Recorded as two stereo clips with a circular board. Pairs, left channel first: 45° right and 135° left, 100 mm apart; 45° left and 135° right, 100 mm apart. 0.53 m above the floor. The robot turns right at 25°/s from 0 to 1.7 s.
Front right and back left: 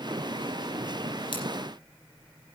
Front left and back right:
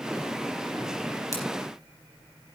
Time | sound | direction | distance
1.3 | scissors | 15° right | 5 m